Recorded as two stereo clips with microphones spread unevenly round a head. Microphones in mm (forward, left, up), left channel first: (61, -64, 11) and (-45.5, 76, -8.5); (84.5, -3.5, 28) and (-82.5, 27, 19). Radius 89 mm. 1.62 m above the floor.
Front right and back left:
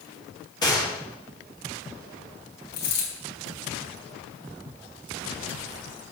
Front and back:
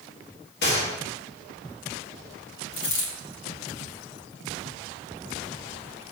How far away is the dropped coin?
About 4 m.